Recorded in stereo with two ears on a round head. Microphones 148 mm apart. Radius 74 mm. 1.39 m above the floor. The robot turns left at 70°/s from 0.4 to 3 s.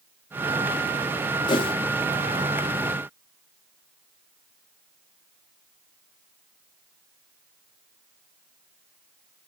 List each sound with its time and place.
1.5 s a whoosh: 30° left (ahead or behind), 1.0 m; by 1.7 s 35° left (ahead or behind), 1.0 m